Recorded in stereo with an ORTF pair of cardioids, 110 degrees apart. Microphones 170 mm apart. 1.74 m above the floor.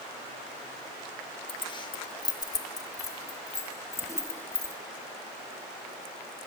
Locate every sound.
1.5 s keys jangling: 30° left, 2.0 m; by 4.8 s 15° left, 3.5 m